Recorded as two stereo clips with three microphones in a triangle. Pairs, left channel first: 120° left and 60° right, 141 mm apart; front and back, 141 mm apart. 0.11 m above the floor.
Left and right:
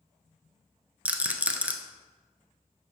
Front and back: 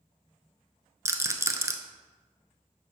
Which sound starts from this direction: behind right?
A rattle, at 1.1 s.